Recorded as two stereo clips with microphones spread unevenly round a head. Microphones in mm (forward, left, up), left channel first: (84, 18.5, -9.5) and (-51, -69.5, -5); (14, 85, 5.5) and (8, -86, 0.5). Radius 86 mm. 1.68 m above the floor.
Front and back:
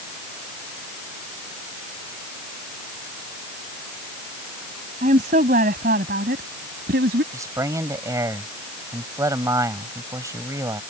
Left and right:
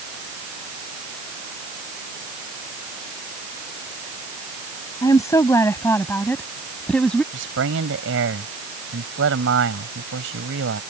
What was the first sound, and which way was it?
A woman speaking, 160° left.